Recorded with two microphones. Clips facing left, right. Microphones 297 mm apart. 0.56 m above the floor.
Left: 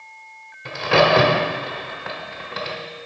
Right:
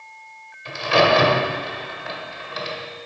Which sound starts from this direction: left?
A crack, at 0.7 s.